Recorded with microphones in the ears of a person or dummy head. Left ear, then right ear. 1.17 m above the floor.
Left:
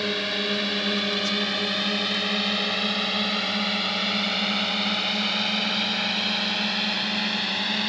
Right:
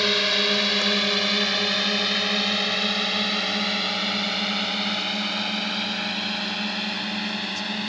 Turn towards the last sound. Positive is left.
turn(degrees=5)  # may be behind; listen again after turning